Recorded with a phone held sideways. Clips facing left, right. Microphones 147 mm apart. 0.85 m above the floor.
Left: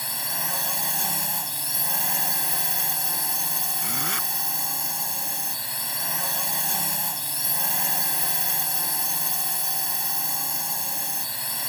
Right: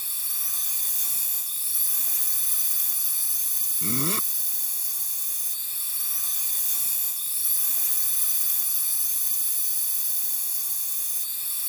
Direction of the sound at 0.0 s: 75° left (ahead or behind).